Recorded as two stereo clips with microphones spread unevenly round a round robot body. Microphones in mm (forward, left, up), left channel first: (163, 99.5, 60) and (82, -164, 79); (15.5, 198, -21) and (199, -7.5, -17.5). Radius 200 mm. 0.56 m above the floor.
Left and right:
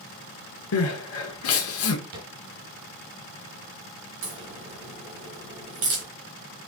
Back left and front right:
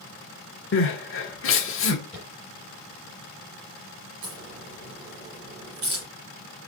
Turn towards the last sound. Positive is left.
turn(degrees=-110)